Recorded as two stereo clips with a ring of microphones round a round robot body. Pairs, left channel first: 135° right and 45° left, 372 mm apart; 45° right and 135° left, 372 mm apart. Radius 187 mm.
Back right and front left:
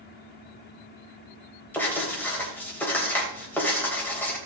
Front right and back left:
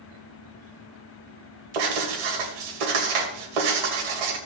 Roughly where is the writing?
Behind left.